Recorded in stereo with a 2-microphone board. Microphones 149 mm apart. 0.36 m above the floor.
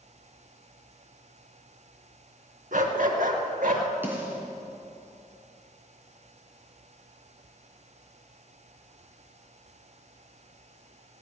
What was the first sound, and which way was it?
A dog barking, 65° right (ahead or behind).